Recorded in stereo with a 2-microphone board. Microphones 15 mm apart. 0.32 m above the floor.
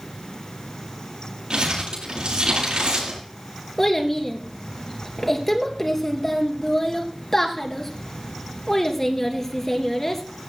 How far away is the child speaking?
About 3 m.